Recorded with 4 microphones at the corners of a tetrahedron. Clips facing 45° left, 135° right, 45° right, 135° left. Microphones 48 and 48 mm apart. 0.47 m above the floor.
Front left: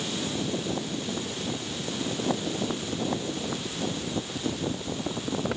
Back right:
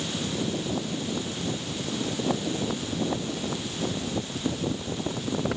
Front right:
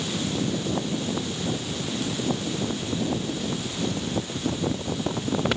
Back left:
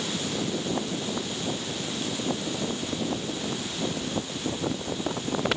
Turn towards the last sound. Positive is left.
No sound to turn to.